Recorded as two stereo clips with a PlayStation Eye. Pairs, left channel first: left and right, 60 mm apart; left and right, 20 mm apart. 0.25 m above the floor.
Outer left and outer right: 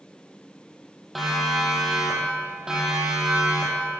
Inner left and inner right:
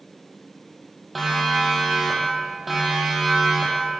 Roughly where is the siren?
Centre.